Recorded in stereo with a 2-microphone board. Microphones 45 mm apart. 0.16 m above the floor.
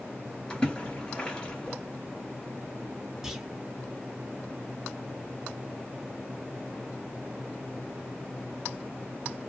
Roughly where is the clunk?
Centre.